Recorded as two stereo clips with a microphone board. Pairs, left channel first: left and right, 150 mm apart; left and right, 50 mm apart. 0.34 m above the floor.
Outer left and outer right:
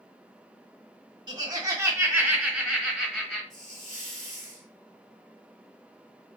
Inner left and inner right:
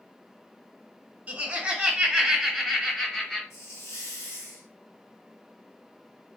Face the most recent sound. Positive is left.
turn(degrees=65)  # may be behind; listen again after turning